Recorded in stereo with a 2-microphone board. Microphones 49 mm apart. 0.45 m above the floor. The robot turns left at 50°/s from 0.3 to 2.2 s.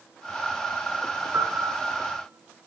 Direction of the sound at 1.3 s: 100° right.